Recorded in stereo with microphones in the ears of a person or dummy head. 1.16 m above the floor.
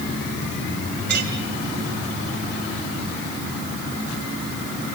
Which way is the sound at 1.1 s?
50° right (ahead or behind).